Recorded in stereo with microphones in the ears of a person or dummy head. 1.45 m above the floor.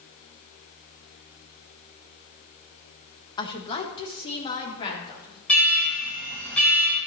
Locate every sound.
3.4 s a woman speaking: 25° left (ahead or behind), 1.0 m; by 5.4 s 30° left (ahead or behind), 4 m
5.5 s an alarm: 5° left (ahead or behind), 5 m